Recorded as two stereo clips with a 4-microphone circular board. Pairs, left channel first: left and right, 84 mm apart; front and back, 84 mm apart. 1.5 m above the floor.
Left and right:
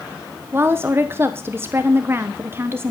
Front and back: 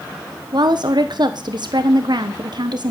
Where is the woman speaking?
150° right, 1.1 m.